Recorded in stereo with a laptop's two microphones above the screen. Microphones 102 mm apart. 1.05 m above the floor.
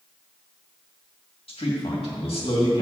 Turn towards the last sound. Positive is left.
turn(degrees=70)  # may be behind; listen again after turning